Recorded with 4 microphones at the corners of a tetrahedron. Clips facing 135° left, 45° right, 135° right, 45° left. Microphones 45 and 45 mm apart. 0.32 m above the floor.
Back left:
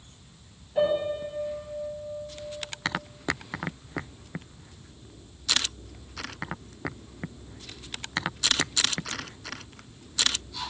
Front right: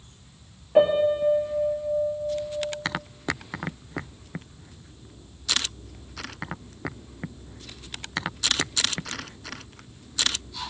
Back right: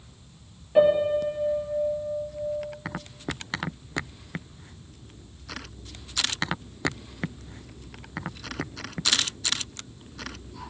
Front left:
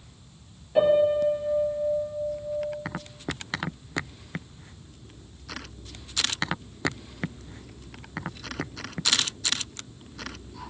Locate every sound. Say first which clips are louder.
0.8 s a piano: front right 6 dB, even; 60° right, 4 m